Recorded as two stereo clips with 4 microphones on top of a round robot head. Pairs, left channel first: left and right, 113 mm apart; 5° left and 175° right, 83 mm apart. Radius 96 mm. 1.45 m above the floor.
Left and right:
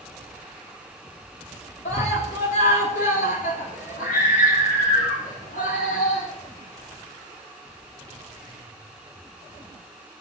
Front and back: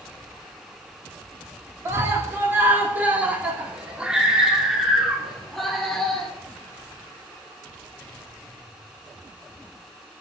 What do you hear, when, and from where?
1.9 s a scream: 125° left, 3 m; by 6.3 s 90° left, 4 m